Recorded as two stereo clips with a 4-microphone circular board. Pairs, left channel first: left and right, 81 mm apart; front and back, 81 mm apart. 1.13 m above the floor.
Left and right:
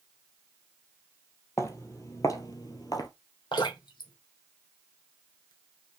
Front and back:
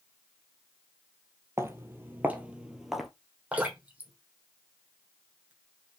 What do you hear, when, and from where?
1.6 s footsteps: 130° left, 1.7 m; by 3.1 s 90° left, 1.6 m
3.5 s dripping: 105° left, 3 m